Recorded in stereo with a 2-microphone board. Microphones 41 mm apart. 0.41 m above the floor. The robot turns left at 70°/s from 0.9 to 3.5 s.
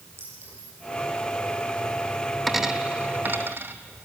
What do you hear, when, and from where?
0.2 s a clink: 80° right, 9 m
2.5 s a dropped coin: centre (ahead or behind), 1.0 m; by 3.8 s 65° right (ahead or behind), 1.0 m